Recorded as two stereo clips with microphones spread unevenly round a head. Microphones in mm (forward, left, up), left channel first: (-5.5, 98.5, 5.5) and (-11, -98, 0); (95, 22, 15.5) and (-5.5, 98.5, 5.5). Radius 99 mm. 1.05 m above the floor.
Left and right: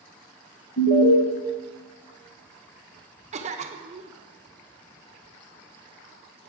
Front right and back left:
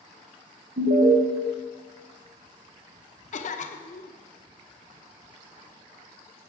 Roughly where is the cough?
Ahead right.